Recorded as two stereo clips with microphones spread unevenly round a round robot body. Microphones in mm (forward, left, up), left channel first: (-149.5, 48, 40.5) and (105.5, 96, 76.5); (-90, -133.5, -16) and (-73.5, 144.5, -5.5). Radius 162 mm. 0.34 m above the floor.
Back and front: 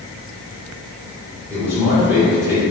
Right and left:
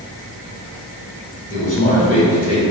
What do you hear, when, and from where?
1.5 s a man speaking: 75° right, 1.1 m